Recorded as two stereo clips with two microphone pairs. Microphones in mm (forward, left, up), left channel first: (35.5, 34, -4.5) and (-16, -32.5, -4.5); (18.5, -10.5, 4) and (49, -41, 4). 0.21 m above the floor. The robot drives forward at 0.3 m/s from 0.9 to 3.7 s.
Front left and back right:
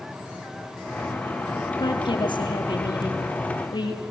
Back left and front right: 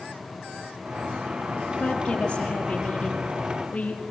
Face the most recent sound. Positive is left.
turn(degrees=75)